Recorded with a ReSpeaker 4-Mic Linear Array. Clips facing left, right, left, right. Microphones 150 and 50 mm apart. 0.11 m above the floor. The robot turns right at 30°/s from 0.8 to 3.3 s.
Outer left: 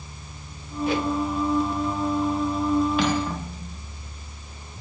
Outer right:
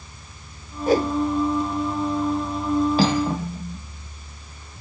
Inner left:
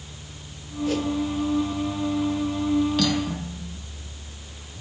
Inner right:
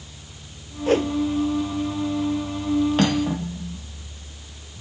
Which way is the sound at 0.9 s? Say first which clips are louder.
Outer right 5 dB, inner right 5 dB; 45° right (ahead or behind).